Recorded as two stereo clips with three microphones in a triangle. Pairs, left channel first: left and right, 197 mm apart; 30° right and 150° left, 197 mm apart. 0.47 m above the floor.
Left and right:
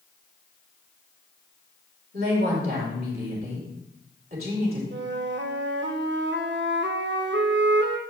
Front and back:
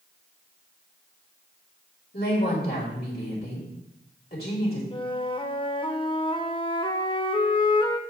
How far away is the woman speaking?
About 3 m.